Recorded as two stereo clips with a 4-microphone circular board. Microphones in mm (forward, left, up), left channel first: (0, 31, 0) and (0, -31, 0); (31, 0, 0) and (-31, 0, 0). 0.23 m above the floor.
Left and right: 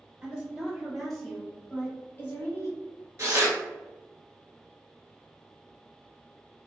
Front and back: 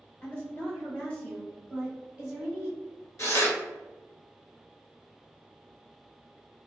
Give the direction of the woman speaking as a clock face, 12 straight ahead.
1 o'clock.